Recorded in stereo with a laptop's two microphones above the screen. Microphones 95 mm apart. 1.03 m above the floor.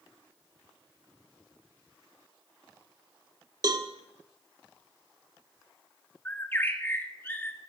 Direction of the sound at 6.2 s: 20° left (ahead or behind).